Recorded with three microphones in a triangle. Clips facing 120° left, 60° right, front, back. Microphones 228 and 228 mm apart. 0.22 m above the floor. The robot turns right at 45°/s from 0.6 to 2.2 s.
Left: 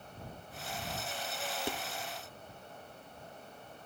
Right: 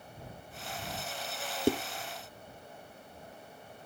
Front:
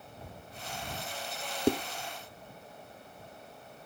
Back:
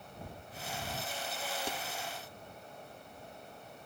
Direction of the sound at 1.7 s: 25° right.